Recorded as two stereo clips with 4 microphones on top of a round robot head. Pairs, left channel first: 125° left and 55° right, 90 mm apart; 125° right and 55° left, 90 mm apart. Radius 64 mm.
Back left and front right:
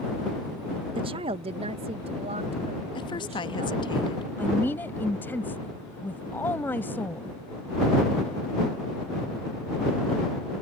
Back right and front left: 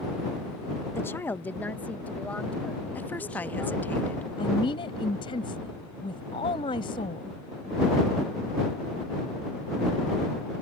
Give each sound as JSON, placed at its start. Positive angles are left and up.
{"t": 0.9, "sound": "a woman speaking", "azimuth_deg": -65}
{"t": 3.0, "sound": "a woman speaking", "azimuth_deg": 160}
{"t": 4.4, "sound": "a woman speaking", "azimuth_deg": -165}